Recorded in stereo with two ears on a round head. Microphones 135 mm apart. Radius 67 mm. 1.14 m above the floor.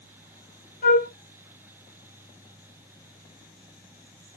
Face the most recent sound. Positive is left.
turn(degrees=65)  # may be behind; listen again after turning